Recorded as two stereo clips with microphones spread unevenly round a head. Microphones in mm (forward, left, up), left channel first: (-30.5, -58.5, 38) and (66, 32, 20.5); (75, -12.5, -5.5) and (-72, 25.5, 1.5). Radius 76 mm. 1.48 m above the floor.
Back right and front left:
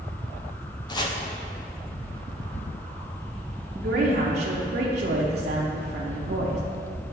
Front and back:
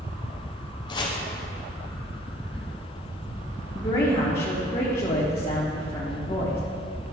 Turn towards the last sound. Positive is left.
turn(degrees=35)